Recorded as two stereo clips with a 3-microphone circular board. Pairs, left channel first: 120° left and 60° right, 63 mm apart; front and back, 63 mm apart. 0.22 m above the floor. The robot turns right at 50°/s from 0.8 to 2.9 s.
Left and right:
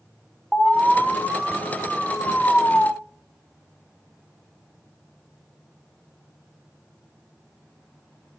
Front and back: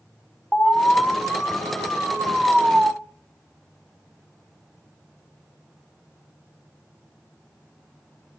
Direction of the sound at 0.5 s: 25° left.